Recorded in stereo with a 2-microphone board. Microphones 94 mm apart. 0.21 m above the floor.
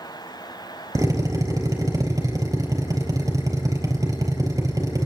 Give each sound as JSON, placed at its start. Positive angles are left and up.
{"t": 0.9, "sound": "a drill", "side_deg": -35, "distance_m": 4.5}